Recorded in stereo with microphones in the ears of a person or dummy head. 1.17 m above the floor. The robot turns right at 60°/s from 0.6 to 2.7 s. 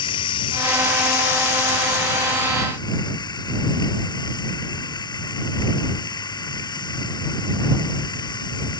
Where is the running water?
30° left; by 8.8 s 160° left.